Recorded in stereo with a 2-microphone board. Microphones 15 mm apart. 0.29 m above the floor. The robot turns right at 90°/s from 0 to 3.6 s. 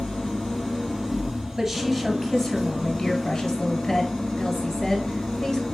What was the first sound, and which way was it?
An engine running, 85° left.